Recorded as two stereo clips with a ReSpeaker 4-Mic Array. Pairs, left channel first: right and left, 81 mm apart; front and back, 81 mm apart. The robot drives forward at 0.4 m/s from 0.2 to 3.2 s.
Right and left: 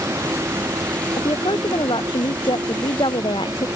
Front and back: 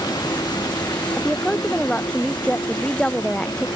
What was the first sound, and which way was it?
A vehicle, 35° left.